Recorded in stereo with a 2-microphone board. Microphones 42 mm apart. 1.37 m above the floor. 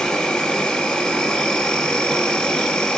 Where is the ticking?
No ticking in this recording.